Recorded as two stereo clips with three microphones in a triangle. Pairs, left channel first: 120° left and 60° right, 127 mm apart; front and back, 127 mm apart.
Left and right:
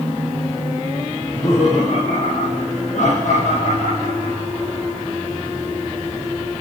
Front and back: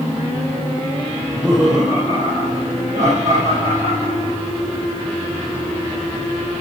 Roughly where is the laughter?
Left.